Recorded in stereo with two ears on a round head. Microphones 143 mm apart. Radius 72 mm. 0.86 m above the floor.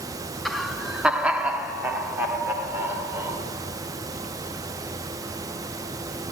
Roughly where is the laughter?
Centre.